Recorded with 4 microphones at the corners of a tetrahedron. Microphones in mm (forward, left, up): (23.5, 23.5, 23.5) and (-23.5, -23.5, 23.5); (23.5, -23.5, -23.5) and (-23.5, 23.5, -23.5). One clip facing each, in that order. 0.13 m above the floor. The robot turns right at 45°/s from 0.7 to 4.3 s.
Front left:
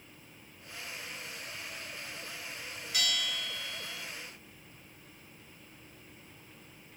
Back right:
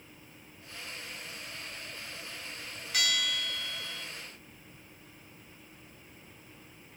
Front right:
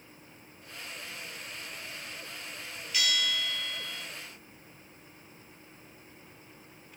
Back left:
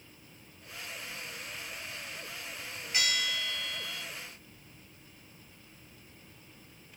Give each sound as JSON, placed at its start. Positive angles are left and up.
{"t": 2.9, "sound": "a bell", "azimuth_deg": -175, "distance_m": 0.9}